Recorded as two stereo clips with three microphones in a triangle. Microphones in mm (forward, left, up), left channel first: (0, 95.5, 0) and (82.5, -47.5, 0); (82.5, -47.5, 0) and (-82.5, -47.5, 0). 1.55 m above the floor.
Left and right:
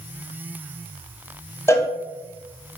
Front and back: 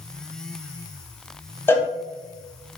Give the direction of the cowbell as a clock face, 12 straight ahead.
10 o'clock.